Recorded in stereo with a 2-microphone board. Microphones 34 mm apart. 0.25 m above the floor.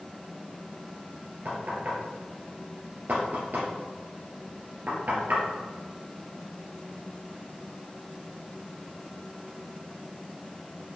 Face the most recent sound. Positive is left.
turn(degrees=-60)  # may be behind; listen again after turning